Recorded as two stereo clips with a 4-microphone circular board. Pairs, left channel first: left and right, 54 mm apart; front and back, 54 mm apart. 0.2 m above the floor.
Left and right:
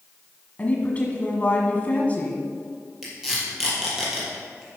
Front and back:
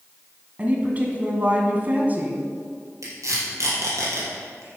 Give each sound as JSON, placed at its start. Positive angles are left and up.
{"t": 0.6, "sound": "a woman speaking", "azimuth_deg": 135, "distance_m": 1.5}
{"t": 3.0, "sound": "tape being pulled", "azimuth_deg": -170, "distance_m": 4.0}